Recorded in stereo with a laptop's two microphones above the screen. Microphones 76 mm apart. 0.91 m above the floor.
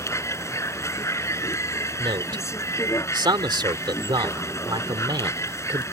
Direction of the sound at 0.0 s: 40° left (ahead or behind).